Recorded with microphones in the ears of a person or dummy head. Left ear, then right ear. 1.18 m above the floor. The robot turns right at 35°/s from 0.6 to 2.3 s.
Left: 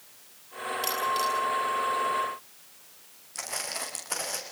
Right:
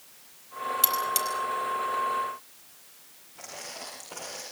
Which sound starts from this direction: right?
Cutlery clinking, at 0.8 s.